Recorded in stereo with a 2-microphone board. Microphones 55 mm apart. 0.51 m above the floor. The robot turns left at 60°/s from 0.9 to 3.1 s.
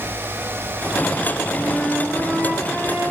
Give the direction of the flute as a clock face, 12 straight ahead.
11 o'clock.